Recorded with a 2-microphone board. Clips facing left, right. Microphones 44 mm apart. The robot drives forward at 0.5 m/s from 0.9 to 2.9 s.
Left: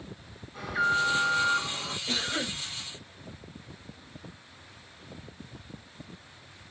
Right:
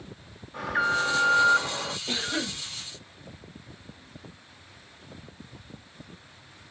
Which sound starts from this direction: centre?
A cough, at 2.1 s.